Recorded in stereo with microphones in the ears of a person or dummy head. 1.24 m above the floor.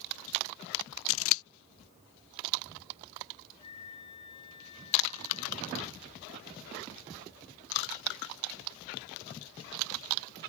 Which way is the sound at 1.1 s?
75° left (ahead or behind).